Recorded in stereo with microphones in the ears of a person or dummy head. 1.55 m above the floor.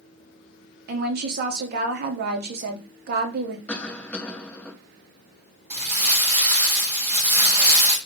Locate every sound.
0.9 s a woman speaking: 50° right (ahead or behind), 0.6 m
3.7 s a cough: 5° left (ahead or behind), 0.7 m
5.7 s crumpling: 30° right (ahead or behind), 1.0 m